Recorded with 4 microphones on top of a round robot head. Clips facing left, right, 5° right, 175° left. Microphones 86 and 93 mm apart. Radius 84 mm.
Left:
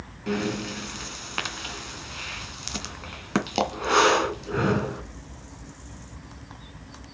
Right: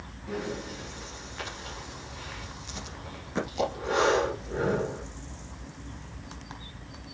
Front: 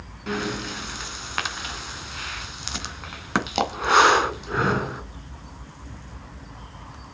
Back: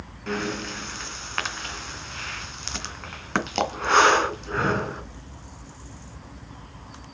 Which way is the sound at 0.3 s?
75° left.